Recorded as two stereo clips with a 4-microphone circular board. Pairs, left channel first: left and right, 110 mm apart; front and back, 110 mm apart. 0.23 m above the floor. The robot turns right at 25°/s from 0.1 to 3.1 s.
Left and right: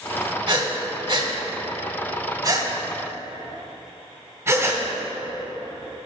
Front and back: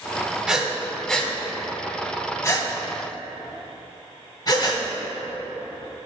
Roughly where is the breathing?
Right.